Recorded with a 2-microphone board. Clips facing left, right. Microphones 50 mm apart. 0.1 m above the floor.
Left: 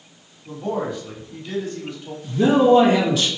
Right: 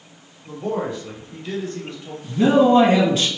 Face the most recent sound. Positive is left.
turn(degrees=-30)  # may be behind; listen again after turning